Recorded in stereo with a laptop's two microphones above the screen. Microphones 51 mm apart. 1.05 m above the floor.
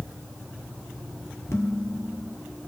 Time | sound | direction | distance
1.5 | dishes clattering | 75° left (ahead or behind) | 1.4 m